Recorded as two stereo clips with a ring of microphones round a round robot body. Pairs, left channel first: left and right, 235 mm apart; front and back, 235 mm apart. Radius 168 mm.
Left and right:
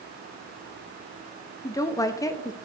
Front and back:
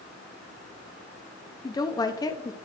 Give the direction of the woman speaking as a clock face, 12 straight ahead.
11 o'clock.